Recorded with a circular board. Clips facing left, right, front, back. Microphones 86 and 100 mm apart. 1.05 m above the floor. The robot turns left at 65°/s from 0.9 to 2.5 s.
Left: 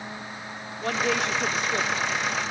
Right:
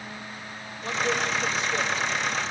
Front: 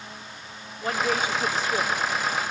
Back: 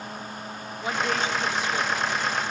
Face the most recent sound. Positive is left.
turn(degrees=-5)